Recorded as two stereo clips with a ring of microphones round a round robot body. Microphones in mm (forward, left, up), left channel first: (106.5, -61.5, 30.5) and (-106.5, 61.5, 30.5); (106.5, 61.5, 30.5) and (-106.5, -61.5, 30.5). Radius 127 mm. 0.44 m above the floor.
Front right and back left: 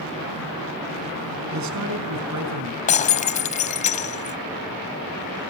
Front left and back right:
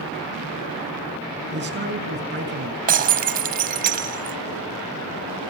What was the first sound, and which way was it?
A man speaking, 165° left.